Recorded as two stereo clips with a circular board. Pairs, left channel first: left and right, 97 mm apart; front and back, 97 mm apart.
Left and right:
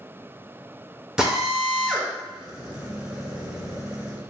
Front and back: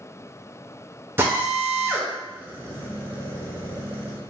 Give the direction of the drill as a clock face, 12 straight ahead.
5 o'clock.